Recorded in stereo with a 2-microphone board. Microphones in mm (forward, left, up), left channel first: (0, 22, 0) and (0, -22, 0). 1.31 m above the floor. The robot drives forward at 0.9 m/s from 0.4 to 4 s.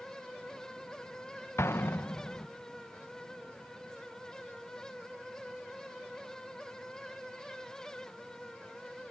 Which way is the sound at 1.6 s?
80° left.